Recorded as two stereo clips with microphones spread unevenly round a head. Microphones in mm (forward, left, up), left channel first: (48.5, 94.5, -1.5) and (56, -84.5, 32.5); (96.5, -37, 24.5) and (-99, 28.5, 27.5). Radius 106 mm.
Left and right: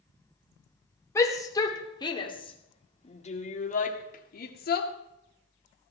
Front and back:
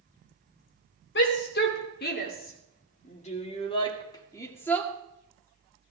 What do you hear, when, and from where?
1.1 s a shout: 20° left, 3 m; by 4.9 s 65° left, 2 m